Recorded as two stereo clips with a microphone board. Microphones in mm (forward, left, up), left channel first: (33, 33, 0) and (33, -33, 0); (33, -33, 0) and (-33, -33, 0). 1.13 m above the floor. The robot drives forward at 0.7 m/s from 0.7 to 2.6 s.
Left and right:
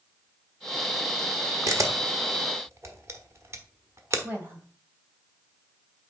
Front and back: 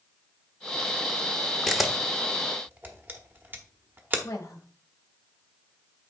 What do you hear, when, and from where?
1.7 s a camera shutter: 85° right, 1.1 m; by 4.2 s 125° right, 1.2 m
4.2 s a woman speaking: 35° right, 2 m